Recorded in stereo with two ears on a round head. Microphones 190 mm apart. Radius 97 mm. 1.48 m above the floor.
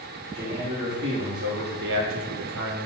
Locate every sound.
0.3 s a man speaking: 20° right (ahead or behind), 1.5 m; by 2.9 s 55° right (ahead or behind), 0.9 m